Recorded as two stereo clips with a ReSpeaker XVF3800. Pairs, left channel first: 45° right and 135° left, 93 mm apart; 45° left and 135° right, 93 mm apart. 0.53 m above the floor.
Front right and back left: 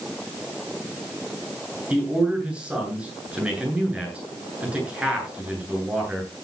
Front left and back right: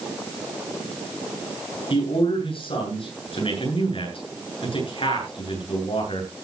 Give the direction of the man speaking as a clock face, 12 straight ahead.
10 o'clock.